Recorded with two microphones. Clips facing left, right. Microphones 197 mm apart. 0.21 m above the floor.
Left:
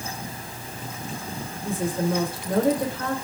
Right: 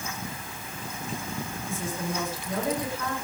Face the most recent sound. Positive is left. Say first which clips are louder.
# left 10 dB
turn(degrees=60)  # may be behind; listen again after turning